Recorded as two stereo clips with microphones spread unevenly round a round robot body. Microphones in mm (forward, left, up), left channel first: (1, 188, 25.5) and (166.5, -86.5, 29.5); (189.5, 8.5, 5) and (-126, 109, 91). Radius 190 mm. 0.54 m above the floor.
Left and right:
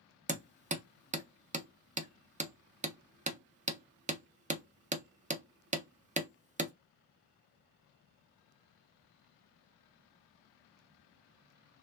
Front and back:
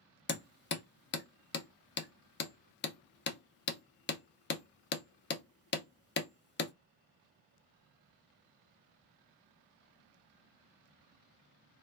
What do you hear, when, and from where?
0.3 s hammering: 5° left, 0.6 m